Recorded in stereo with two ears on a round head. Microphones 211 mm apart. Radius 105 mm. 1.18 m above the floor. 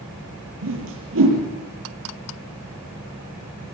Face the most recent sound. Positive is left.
turn(degrees=-60)  # may be behind; listen again after turning